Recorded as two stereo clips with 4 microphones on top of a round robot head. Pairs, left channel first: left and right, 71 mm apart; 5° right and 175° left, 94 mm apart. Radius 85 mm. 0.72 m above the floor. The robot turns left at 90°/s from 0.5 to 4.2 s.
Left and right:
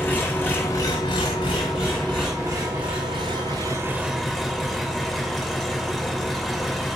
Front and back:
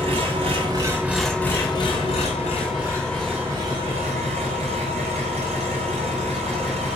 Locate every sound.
0.0 s an engine running: 155° left, 1.9 m; by 7.0 s straight behind, 1.9 m